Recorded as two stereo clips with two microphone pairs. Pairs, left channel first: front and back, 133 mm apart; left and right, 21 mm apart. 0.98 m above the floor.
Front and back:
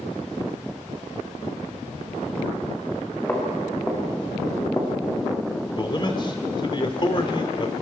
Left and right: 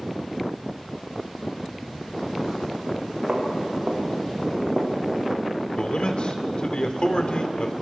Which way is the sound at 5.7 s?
55° left.